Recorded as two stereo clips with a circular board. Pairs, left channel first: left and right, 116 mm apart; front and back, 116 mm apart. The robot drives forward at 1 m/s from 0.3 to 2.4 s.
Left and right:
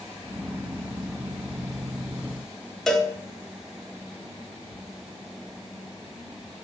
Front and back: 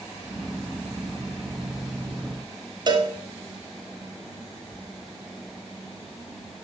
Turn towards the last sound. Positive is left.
turn(degrees=175)